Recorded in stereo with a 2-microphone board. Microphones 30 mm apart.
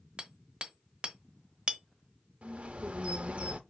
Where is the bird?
40° right (ahead or behind), 0.7 m.